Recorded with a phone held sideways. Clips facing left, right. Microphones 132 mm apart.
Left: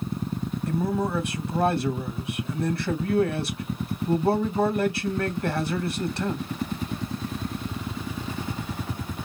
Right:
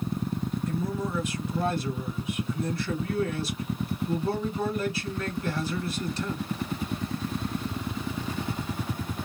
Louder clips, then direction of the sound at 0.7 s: Left 8 dB; 70° left (ahead or behind).